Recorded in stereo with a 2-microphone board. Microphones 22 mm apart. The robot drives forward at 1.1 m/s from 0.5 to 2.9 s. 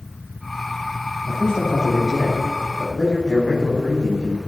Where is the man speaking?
25° left (ahead or behind), 7 m; by 4.4 s 30° left (ahead or behind), 5.5 m.